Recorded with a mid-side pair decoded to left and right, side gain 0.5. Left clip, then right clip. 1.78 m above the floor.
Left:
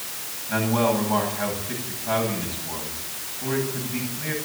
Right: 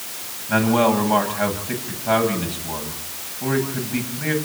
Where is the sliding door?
No sliding door in this recording.